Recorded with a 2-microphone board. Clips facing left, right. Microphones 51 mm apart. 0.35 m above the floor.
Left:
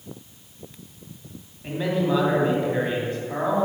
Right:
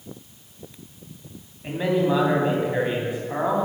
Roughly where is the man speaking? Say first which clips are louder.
Right 2 dB; centre.